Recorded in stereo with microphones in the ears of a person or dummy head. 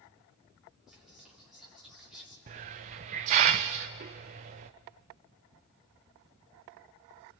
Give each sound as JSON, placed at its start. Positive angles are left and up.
{"t": 0.9, "sound": "whispering", "side_deg": -5, "distance_m": 4.0}
{"t": 2.5, "sound": "a hiss", "side_deg": -35, "distance_m": 0.5}